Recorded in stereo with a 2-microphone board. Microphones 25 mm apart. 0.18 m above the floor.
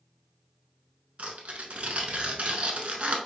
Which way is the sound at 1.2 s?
55° right (ahead or behind).